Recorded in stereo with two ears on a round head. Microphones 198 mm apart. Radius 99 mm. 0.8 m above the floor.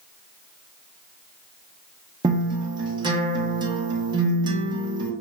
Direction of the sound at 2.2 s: 20° right (ahead or behind).